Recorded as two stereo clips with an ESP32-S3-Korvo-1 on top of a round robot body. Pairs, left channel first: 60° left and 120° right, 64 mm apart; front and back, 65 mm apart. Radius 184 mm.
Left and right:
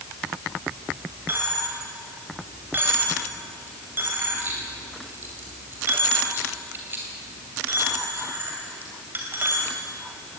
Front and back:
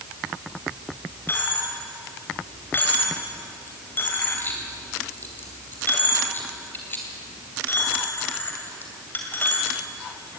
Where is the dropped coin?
60° right, 2.5 m.